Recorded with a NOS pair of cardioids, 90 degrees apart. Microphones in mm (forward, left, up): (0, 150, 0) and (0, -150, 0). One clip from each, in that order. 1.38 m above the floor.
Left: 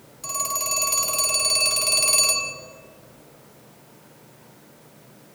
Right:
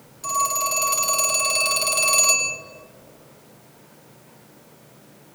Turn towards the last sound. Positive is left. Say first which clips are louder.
# right 5 dB
turn(degrees=5)